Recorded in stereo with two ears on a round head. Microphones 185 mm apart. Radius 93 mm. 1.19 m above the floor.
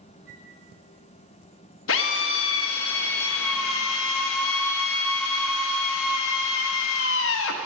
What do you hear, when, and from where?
0.3 s a flute: 5° left (ahead or behind), 1.5 m
1.9 s a drill: 70° left (ahead or behind), 1.0 m